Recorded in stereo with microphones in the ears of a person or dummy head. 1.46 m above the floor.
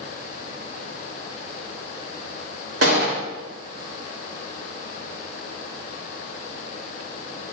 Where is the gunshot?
80° right, 3.5 m.